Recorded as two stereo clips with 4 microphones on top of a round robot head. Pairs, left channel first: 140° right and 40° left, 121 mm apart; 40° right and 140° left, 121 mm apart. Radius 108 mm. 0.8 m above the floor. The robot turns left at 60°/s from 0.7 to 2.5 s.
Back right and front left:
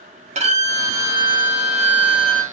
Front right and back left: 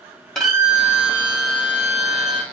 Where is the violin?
45° left, 1.5 m; by 2.4 s 60° right, 1.5 m.